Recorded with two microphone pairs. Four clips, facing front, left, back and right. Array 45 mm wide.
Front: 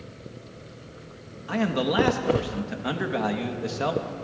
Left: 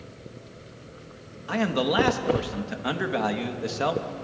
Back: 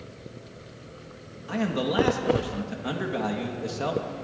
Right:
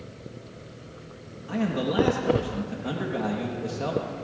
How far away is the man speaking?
About 1.1 m.